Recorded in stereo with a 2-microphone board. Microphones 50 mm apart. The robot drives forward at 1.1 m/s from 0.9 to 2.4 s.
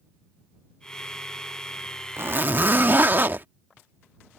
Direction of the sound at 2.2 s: 60° right (ahead or behind).